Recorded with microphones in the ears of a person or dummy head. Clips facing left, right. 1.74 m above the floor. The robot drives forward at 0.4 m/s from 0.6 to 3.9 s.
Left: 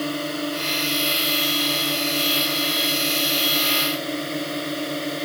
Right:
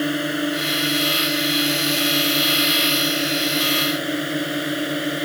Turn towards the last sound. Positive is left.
turn(degrees=-10)  # may be behind; listen again after turning